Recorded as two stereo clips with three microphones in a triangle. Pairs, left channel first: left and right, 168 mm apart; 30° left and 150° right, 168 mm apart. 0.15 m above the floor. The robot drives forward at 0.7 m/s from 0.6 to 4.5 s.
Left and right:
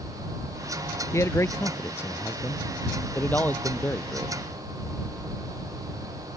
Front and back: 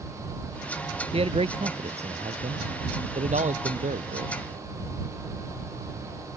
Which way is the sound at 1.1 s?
160° left.